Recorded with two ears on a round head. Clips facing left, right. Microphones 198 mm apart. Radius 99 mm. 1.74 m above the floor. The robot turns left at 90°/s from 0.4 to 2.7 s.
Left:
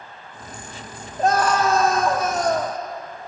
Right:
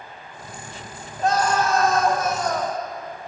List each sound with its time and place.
1.2 s a scream: 155° left, 0.8 m; by 2.8 s 20° left, 0.8 m